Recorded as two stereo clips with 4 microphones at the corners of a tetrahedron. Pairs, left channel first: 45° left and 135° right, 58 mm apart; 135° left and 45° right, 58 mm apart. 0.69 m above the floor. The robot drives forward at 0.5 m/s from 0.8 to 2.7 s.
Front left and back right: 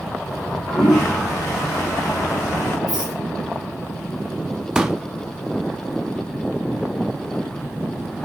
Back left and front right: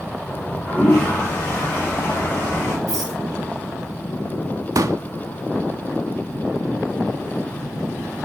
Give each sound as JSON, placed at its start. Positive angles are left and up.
{"t": 0.3, "sound": "a toilet flushing", "azimuth_deg": 70, "distance_m": 4.0}
{"t": 2.9, "sound": "a rattle", "azimuth_deg": 55, "distance_m": 4.5}
{"t": 4.8, "sound": "a pop", "azimuth_deg": -55, "distance_m": 0.5}